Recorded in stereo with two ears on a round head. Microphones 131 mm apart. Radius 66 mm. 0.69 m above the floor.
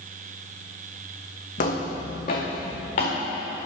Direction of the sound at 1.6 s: 60° left (ahead or behind).